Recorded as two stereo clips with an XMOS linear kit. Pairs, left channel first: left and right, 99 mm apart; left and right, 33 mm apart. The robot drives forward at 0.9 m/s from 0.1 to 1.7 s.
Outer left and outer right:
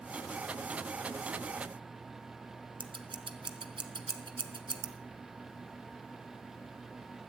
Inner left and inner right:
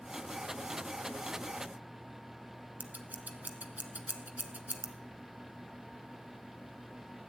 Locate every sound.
2.8 s scissors: 65° right (ahead or behind), 0.9 m